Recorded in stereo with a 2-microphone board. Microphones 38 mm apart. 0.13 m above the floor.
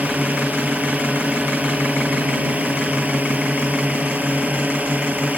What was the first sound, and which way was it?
A drone, 40° right (ahead or behind).